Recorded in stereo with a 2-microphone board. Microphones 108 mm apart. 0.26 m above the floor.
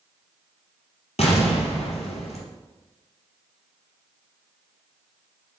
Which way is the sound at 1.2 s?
85° left.